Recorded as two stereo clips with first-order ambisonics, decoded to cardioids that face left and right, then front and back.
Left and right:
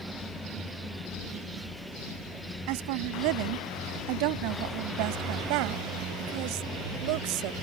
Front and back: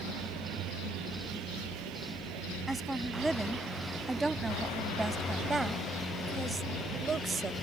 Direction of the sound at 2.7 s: 95° right.